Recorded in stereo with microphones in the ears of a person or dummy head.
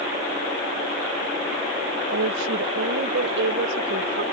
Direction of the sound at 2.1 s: 85° right.